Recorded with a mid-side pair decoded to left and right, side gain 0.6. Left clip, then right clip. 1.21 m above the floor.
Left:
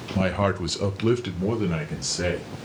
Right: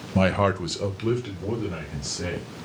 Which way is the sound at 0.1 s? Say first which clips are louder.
Right 2 dB; 30° right.